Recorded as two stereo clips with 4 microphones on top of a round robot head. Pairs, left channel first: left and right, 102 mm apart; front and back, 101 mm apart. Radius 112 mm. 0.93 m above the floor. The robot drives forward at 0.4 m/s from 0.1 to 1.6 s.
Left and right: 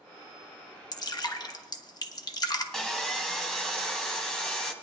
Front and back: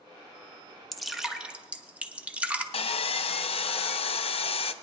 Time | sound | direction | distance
0.9 | dripping | 85° left | 1.0 m
2.7 | sawing | 5° left | 0.5 m